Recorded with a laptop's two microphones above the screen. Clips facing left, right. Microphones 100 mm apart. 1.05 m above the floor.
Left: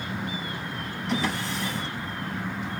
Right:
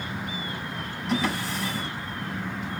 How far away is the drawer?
About 4.5 m.